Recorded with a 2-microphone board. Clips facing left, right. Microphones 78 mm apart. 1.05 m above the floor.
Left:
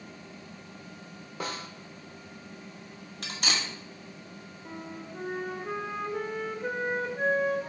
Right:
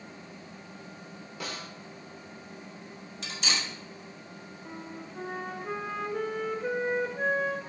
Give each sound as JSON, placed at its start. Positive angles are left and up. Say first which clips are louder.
{"t": 1.4, "sound": "a snare drum", "louder": "left 3 dB", "side_deg": 45, "distance_m": 1.0}
{"t": 3.2, "sound": "cutlery clinking", "louder": "left 1 dB", "side_deg": 60, "distance_m": 1.2}
{"t": 4.7, "sound": "a flute", "louder": "left 2 dB", "side_deg": 5, "distance_m": 0.8}